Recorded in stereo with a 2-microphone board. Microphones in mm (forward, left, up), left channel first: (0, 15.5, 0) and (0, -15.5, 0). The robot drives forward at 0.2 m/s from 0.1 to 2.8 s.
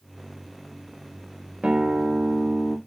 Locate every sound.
1.6 s a guitar: 35° right (ahead or behind), 0.5 m; by 2.8 s 30° right (ahead or behind), 0.6 m